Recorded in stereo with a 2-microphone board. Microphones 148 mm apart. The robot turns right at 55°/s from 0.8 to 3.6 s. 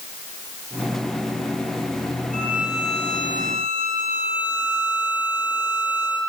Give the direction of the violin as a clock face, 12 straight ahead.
3 o'clock.